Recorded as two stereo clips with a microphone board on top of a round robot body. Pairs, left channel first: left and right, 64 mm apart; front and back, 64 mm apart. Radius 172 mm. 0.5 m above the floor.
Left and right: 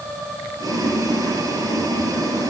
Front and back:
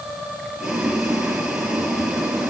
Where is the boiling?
100° right, 5 m.